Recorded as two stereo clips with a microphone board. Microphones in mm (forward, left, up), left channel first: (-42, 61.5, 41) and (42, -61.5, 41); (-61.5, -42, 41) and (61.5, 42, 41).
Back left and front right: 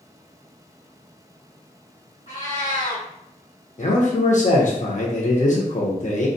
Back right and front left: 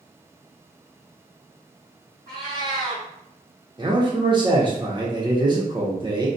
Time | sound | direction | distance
2.3 | a cat meowing | 125° left | 1.3 m
3.8 | a man speaking | 90° left | 0.8 m